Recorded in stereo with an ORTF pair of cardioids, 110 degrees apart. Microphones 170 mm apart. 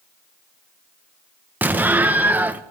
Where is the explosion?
10° right, 1.0 m.